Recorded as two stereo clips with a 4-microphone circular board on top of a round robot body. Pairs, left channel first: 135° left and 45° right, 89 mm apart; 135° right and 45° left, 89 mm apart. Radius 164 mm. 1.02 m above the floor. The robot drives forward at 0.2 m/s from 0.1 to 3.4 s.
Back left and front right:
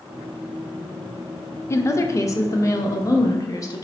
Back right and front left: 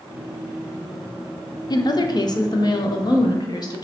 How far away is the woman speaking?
About 0.5 m.